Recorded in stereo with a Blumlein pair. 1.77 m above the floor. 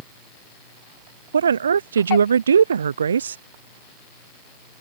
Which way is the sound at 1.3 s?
70° right.